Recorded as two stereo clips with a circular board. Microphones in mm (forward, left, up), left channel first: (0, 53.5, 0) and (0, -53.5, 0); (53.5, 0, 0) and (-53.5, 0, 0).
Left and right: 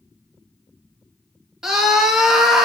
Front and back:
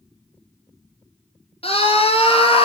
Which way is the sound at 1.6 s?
5° right.